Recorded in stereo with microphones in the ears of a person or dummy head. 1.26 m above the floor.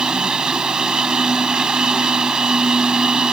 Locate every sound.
0.0 s a machine running: centre (ahead or behind)